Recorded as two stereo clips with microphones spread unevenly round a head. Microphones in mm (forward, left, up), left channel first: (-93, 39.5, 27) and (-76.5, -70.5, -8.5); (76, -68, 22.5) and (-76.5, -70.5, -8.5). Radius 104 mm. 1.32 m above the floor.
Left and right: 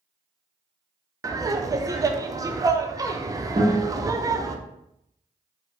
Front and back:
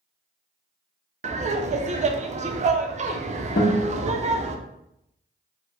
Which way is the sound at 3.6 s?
25° right.